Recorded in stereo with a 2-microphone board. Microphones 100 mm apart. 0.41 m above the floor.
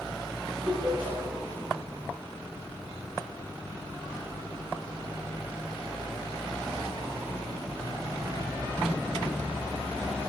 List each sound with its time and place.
0.7 s laughter: 25° right (ahead or behind), 8.5 m